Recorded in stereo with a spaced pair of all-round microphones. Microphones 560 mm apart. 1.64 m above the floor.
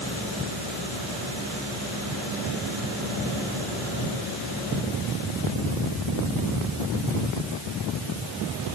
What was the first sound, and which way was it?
Only background noise.